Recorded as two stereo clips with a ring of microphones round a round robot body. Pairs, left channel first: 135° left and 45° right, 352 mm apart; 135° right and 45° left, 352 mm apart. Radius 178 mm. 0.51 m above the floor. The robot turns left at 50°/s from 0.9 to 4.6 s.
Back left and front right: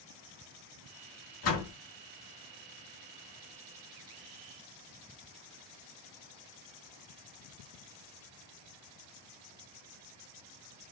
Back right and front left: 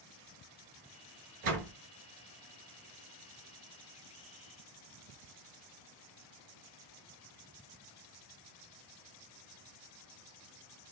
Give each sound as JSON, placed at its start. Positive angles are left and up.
{"t": 1.4, "sound": "a door slam", "azimuth_deg": 85, "distance_m": 3.0}